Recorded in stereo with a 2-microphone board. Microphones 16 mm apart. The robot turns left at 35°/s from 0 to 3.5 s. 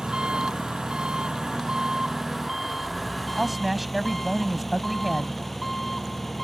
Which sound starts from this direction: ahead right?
An engine running, at 0.0 s.